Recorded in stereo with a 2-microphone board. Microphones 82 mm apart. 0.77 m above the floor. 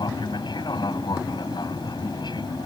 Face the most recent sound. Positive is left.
turn(degrees=65)  # may be behind; listen again after turning